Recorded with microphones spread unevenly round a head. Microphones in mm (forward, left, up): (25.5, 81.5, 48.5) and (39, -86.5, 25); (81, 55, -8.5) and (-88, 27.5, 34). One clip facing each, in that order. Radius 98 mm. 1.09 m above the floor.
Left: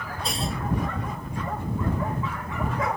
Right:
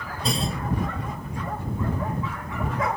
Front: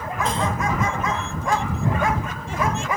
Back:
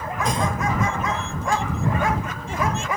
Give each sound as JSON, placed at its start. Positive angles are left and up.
{"t": 0.2, "sound": "a clunk", "azimuth_deg": -95}